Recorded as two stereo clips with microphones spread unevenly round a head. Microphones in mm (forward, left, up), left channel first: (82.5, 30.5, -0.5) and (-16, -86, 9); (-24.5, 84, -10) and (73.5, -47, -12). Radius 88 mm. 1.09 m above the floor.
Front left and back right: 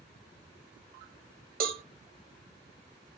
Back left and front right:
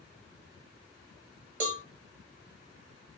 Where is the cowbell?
105° right, 0.7 m.